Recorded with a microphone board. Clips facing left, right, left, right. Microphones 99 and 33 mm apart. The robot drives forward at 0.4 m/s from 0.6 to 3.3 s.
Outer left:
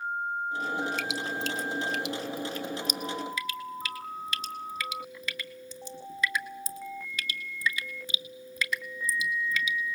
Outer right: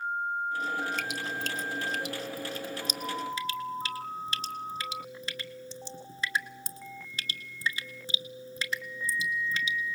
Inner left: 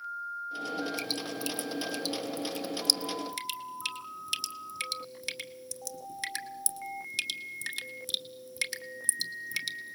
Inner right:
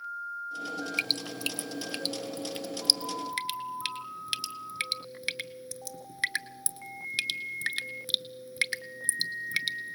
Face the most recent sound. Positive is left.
turn(degrees=-30)  # may be behind; listen again after turning